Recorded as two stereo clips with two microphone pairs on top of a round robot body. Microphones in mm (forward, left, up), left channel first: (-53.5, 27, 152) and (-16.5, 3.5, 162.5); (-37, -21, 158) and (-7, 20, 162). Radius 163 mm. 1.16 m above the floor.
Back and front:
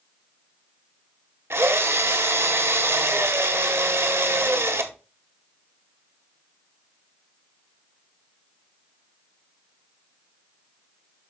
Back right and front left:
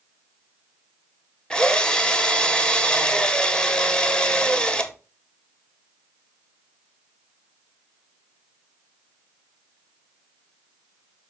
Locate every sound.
1.5 s a drill: 55° right, 1.4 m